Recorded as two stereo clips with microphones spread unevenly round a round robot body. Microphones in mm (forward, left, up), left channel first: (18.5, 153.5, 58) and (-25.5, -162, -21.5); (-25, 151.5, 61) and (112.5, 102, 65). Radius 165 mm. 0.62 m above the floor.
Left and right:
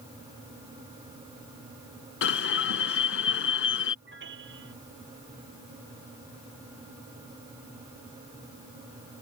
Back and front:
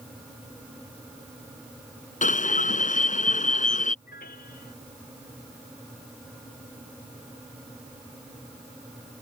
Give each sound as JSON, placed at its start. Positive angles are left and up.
{"t": 2.2, "sound": "an alarm", "azimuth_deg": 135}
{"t": 4.0, "sound": "a piano", "azimuth_deg": -155}